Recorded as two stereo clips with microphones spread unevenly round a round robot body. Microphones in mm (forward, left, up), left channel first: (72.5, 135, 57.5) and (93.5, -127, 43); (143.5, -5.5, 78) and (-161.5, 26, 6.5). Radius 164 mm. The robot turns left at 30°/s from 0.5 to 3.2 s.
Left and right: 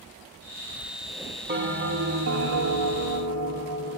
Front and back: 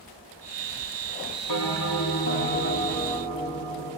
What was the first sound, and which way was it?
A bell, 35° right.